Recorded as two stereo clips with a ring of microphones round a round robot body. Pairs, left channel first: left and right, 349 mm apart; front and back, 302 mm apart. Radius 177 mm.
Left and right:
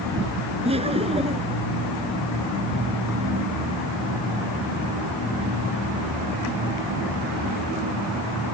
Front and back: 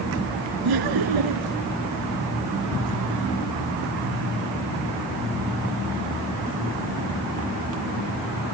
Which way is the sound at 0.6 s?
165° right.